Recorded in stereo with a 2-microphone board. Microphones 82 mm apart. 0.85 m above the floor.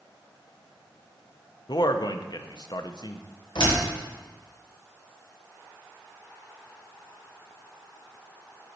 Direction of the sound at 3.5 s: 70° left (ahead or behind).